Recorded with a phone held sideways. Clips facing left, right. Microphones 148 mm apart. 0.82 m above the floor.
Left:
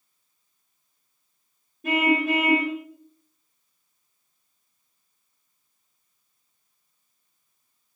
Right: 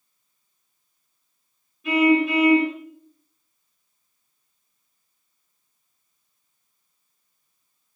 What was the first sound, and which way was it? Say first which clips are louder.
A car horn: right 4 dB; 50° left (ahead or behind).